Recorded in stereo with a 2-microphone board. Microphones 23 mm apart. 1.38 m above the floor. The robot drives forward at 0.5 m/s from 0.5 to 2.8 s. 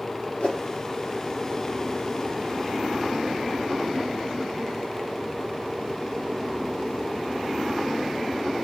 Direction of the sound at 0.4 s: 65° left (ahead or behind).